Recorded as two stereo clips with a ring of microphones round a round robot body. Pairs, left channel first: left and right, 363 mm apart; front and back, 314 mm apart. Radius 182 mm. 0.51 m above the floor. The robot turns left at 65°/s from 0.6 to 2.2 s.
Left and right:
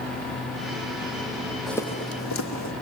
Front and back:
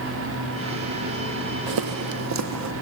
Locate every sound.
1.7 s footsteps: straight behind, 1.3 m; by 2.7 s 145° left, 2 m